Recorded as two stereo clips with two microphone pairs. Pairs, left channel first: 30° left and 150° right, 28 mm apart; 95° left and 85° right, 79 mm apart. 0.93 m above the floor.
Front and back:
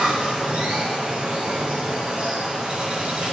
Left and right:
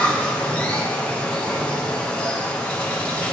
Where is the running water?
170° left, 2 m.